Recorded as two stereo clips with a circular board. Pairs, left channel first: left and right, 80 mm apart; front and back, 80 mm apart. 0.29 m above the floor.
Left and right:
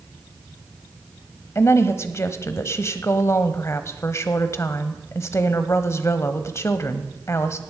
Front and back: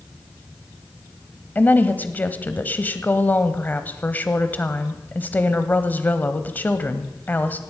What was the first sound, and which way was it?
A woman speaking, 55° left.